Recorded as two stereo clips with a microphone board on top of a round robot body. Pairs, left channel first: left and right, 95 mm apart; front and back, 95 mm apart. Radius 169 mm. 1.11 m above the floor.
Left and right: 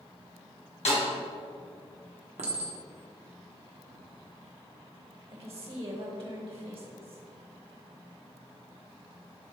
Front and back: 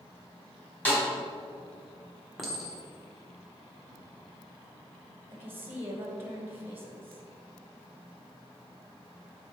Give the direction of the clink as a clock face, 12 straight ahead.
3 o'clock.